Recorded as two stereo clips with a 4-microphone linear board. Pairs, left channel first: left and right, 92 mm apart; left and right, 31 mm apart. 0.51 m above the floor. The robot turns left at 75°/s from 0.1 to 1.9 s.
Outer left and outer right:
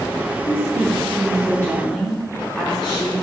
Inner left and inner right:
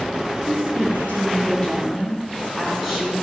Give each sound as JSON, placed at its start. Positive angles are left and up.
{"t": 0.5, "sound": "a woman speaking", "azimuth_deg": 115, "distance_m": 4.0}